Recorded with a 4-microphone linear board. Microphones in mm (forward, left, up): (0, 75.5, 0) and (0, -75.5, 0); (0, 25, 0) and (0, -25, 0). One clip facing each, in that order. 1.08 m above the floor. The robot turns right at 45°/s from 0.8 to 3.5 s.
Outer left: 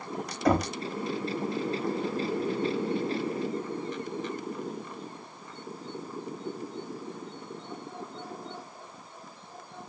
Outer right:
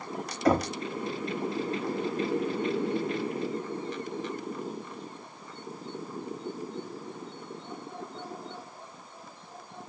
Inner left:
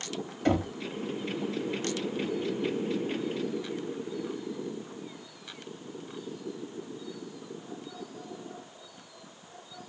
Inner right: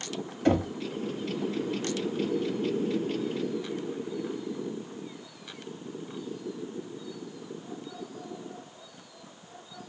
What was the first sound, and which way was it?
Knocking, centre (ahead or behind).